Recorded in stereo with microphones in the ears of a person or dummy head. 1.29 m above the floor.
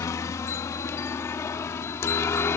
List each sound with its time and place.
0.0 s a helicopter: 15° left (ahead or behind)